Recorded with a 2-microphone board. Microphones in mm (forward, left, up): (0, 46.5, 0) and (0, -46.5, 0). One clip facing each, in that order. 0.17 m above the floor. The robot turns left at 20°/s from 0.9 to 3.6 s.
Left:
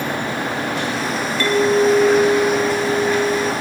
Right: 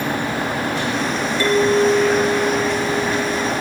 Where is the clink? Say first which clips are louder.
Even; 170° right, 1.8 m; by 3.5 s 150° left, 1.8 m.